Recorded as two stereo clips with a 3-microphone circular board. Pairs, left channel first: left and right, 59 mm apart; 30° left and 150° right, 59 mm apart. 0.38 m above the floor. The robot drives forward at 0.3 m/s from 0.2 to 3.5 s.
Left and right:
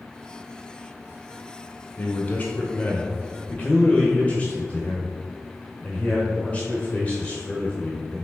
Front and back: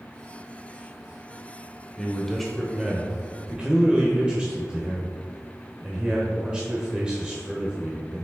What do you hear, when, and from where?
2.0 s a man speaking: 95° left, 0.8 m; by 8.2 s 145° left, 1.0 m